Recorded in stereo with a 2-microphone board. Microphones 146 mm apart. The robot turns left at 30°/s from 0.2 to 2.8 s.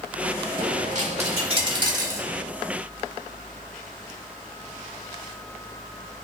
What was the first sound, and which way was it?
A dropped coin, 110° right.